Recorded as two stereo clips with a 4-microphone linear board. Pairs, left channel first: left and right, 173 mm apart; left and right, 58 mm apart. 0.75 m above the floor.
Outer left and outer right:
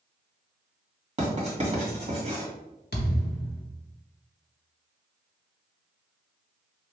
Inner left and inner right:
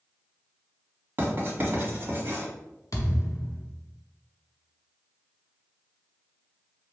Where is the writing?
40° right (ahead or behind), 1.3 m.